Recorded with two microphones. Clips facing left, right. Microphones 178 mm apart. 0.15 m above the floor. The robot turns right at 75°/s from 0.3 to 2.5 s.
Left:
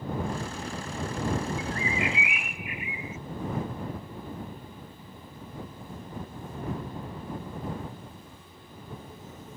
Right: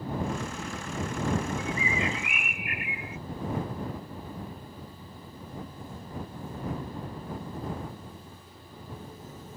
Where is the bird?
175° left; by 3.2 s 115° right.